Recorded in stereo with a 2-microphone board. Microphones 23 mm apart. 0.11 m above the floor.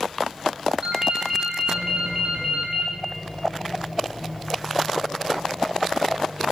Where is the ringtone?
40° right (ahead or behind), 1.2 m.